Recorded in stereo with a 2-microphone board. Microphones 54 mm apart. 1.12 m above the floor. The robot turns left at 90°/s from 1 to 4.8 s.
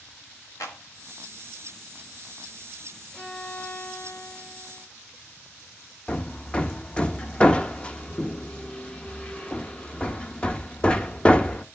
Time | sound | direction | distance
0.6 | a clap | 85° left | 1.5 m
3.1 | a violin | 165° right | 3 m
6.1 | hammering | 20° left (ahead or behind) | 0.6 m